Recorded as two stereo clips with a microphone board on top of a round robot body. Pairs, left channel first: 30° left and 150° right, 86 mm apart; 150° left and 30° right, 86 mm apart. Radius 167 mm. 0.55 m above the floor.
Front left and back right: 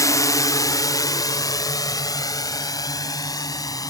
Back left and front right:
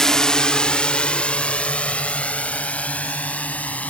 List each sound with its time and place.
0.0 s a drone: 65° left; by 3.9 s 75° left